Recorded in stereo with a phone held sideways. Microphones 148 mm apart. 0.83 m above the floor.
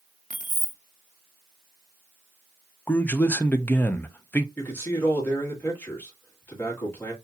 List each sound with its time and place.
0.3 s keys jangling: 55° right (ahead or behind), 0.6 m
2.9 s a man speaking: 10° left (ahead or behind), 0.5 m
4.6 s a man speaking: 15° left (ahead or behind), 1.8 m